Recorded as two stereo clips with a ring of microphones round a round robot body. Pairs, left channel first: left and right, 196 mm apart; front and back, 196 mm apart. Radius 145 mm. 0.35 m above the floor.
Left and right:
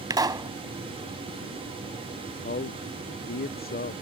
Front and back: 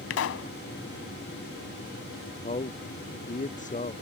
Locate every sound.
0.1 s a pop: 20° right
2.4 s a man speaking: 50° left